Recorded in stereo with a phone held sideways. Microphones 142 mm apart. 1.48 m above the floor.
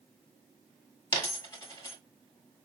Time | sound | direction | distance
1.1 | a dropped coin | 20° left (ahead or behind) | 1.3 m